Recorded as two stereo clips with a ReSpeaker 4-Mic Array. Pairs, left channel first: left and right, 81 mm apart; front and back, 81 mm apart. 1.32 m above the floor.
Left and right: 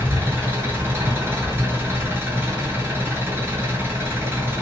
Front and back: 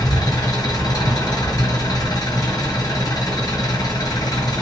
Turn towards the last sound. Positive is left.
turn(degrees=-30)